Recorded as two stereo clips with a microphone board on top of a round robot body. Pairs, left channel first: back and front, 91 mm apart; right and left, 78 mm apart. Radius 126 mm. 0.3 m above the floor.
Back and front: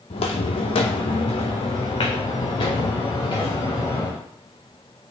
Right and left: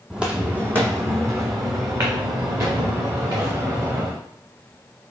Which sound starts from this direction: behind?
Footsteps, at 0.1 s.